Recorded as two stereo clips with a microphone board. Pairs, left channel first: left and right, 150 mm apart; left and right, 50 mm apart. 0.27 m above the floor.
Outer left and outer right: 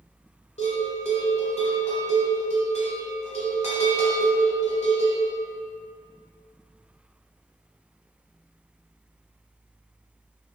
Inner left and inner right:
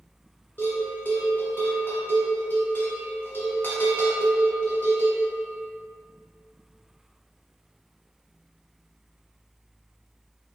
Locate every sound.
0.6 s a bell: 50° left (ahead or behind), 0.9 m